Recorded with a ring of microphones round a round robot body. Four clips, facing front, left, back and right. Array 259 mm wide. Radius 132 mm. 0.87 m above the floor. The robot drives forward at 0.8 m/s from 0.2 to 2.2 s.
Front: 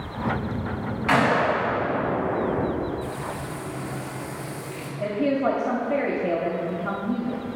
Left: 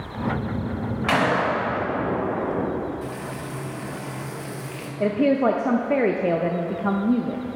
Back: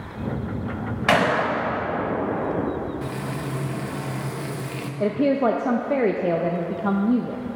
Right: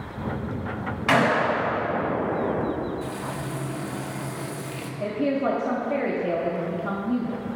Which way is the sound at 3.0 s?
170° right.